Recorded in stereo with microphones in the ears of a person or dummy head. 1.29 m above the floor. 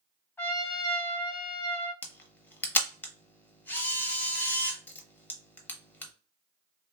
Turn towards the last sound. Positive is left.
turn(degrees=10)  # may be behind; listen again after turning